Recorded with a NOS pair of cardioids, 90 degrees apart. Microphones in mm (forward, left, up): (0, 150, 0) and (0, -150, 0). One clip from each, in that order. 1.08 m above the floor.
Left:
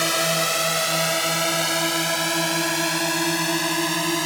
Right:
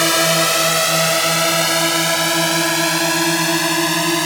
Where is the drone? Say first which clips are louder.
Right 6 dB; 45° right.